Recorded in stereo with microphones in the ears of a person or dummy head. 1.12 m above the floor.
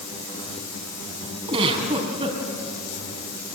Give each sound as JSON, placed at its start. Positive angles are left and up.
{"t": 1.5, "sound": "a giggle", "side_deg": -30, "distance_m": 4.5}